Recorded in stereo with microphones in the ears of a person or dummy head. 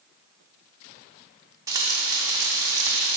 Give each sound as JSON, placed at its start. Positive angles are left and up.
{"t": 1.7, "sound": "frying", "side_deg": -20, "distance_m": 1.0}